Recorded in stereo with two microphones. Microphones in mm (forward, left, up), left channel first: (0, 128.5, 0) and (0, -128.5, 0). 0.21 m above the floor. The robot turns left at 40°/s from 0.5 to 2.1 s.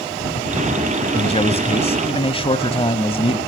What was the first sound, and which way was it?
A man speaking, 25° left (ahead or behind).